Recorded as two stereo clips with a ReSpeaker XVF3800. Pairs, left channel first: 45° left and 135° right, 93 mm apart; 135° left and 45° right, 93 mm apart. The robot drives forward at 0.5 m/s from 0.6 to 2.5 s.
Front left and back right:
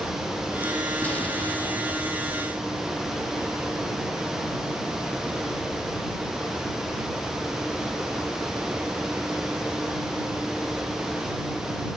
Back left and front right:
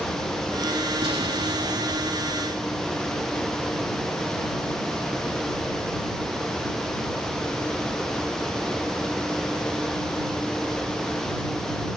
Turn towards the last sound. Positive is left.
turn(degrees=-35)